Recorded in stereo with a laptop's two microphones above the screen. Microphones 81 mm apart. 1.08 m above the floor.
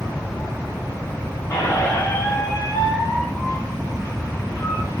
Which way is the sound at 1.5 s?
40° left (ahead or behind).